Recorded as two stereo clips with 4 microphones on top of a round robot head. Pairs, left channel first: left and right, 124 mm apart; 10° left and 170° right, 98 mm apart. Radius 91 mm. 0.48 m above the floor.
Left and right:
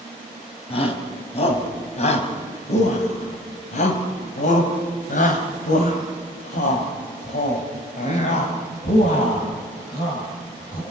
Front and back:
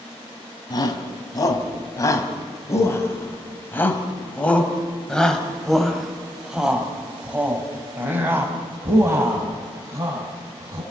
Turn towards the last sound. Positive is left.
turn(degrees=140)